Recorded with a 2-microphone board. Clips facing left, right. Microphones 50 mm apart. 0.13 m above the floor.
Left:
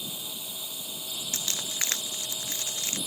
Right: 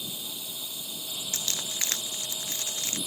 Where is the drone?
15° left (ahead or behind).